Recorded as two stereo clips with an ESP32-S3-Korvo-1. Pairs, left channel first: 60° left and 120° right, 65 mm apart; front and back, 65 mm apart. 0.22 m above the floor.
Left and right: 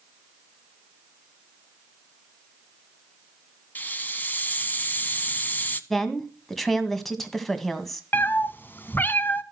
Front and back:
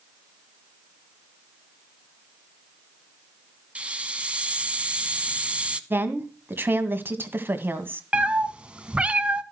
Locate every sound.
3.8 s a hiss: 115° left, 0.9 m
5.9 s a woman speaking: 145° left, 1.8 m
8.1 s a cat meowing: 110° left, 0.9 m